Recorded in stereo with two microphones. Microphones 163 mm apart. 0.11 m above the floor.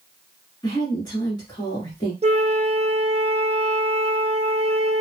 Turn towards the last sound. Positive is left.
turn(degrees=-40)  # may be behind; listen again after turning